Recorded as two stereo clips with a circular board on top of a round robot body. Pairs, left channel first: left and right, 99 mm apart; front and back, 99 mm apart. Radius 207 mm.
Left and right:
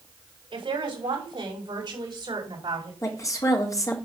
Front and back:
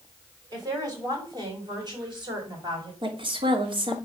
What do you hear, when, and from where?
0.5 s a woman speaking: 130° right, 6.5 m; by 2.9 s 140° right, 7.5 m
3.0 s a woman speaking: 145° left, 3.5 m